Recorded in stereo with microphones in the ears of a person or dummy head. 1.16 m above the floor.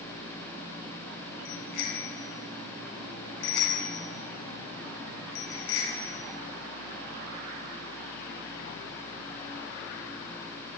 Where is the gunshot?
No gunshot in this recording.